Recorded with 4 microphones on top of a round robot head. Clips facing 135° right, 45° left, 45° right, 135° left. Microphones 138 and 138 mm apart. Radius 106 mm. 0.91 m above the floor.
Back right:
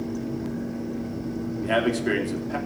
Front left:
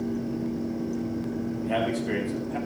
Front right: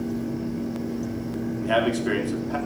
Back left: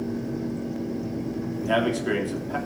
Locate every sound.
1.6 s a man speaking: 135° right, 2.5 m